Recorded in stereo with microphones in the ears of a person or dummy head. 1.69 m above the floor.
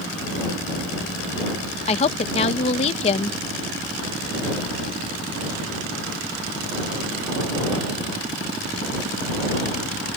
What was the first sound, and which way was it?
A woman speaking, 35° left (ahead or behind).